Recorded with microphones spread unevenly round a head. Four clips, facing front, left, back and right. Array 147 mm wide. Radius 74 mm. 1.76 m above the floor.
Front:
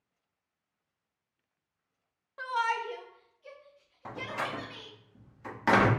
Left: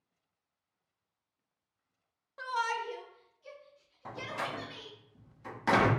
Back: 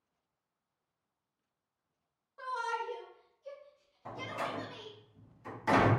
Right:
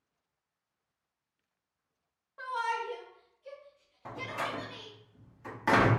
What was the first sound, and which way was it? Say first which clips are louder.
A shout: even, front 5 dB; 30° left.